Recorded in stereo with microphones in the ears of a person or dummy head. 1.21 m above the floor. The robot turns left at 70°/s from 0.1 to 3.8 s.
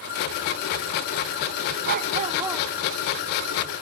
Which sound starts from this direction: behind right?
A dog barking, at 1.8 s.